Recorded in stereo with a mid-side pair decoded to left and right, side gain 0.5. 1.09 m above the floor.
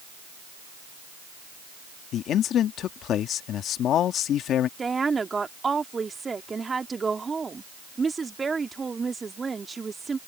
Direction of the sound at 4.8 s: 25° right.